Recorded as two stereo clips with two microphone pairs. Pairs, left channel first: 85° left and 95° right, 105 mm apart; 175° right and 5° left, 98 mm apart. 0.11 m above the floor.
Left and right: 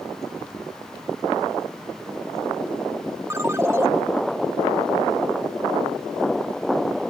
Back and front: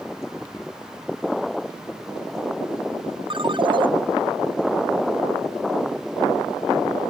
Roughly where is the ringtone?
Ahead right.